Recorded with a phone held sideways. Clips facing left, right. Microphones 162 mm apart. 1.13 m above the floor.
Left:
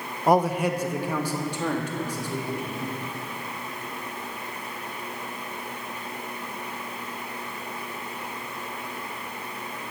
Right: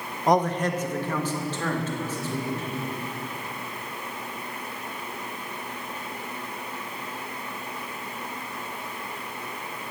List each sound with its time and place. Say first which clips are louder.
0.3 s a man speaking: left 1 dB; 5° left (ahead or behind), 0.9 m; by 2.8 s 15° left (ahead or behind), 4 m